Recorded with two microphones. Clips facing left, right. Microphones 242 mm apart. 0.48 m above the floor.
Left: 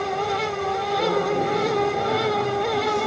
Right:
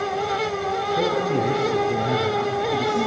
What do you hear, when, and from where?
0.9 s a man speaking: 85° right, 6 m